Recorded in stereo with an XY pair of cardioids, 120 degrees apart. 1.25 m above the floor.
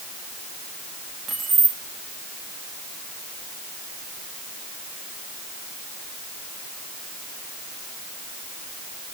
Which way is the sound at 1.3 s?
40° right.